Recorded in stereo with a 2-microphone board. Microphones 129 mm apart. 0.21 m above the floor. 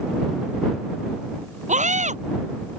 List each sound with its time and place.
1.7 s a scream: 70° right (ahead or behind)